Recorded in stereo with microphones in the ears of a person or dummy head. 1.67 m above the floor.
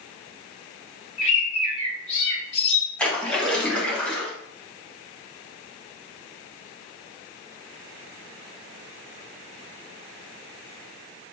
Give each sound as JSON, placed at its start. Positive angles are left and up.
{"t": 1.2, "sound": "a bird", "side_deg": 35, "distance_m": 2.5}
{"t": 3.0, "sound": "a splash", "side_deg": 10, "distance_m": 1.5}